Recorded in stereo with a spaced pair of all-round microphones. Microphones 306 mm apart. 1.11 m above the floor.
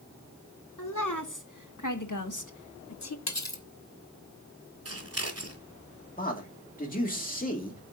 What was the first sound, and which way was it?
A woman speaking, 80° left.